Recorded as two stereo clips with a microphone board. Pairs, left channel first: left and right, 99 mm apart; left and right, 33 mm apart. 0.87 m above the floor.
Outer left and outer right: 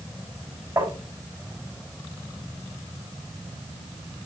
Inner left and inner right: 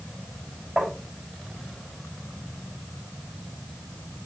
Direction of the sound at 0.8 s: 30° right (ahead or behind).